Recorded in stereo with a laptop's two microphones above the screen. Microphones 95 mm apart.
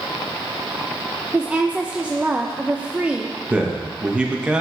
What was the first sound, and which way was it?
A woman speaking, 15° right (ahead or behind).